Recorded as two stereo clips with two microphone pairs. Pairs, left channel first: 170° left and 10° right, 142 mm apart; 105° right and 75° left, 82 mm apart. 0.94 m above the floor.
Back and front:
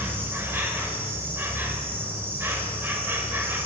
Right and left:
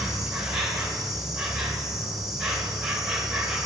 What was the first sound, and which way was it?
An insect, 5° left.